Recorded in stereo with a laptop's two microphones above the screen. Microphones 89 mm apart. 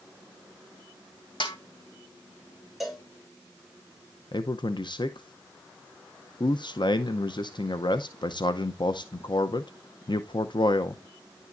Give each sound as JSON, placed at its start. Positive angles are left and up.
{"t": 1.4, "sound": "a snare drum", "side_deg": 70, "distance_m": 2.5}
{"t": 2.8, "sound": "a cowbell", "side_deg": -5, "distance_m": 3.0}
{"t": 4.3, "sound": "a man speaking", "side_deg": 60, "distance_m": 0.6}